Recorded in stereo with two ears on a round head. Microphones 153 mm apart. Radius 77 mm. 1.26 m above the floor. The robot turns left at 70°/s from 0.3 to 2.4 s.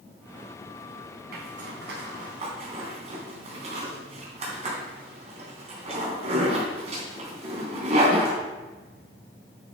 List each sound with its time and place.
1.3 s a zipper: 60° right (ahead or behind), 3.5 m; by 8.4 s 40° right (ahead or behind), 3.5 m